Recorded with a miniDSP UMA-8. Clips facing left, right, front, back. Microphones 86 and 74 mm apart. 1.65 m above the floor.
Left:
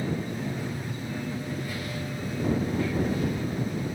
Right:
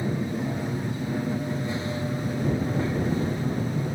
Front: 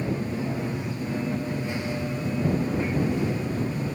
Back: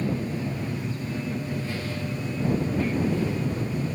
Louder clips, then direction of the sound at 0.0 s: Right 3 dB, even; 45° right.